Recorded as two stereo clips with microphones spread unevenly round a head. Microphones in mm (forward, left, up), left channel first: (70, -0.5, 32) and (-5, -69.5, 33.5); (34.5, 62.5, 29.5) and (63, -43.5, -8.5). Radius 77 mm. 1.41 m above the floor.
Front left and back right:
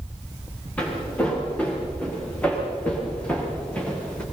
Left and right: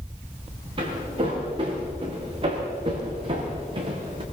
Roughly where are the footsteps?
Ahead right.